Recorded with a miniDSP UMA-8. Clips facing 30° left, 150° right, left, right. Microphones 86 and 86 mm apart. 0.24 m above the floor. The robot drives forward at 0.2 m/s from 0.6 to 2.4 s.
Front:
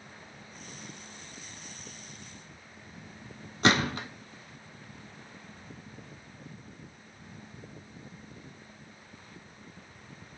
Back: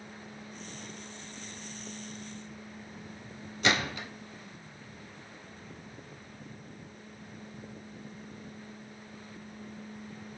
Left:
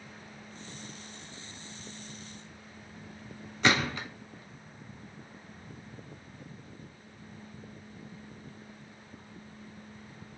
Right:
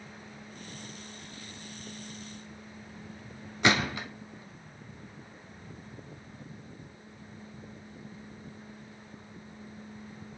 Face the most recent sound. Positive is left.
turn(degrees=-15)